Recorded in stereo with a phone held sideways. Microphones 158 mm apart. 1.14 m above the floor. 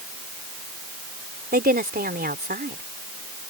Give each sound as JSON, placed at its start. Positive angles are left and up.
{"t": 1.5, "sound": "a woman speaking", "side_deg": -80}